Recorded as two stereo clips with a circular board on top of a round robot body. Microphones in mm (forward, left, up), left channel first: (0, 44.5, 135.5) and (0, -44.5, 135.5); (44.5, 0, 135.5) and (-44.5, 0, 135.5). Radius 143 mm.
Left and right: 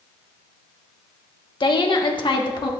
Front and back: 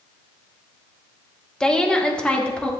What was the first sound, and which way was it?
A woman speaking, 80° left.